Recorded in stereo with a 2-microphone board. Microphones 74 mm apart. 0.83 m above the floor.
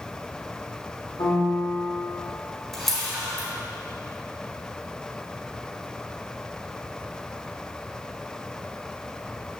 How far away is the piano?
About 2.5 m.